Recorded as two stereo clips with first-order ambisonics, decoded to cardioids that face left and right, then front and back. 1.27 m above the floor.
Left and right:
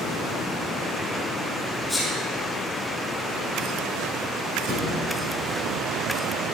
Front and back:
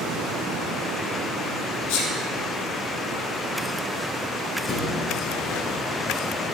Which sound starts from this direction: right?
A thud, at 4.7 s.